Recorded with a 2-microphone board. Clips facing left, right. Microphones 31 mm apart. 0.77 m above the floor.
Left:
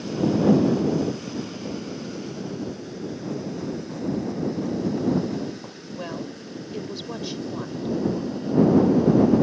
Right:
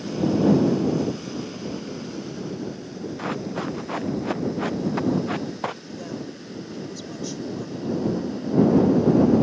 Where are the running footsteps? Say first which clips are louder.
Right 4 dB; 65° right (ahead or behind); by 5.8 s 75° right (ahead or behind).